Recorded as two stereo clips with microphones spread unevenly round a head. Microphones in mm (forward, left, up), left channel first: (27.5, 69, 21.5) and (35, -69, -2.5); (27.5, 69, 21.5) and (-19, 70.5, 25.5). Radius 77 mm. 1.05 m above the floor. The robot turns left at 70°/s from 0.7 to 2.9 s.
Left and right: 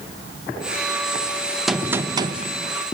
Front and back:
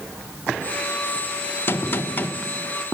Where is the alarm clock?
No alarm clock in this recording.